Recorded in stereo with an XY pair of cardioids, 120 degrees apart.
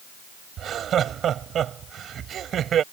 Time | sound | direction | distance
0.6 | laughter | 50° right | ?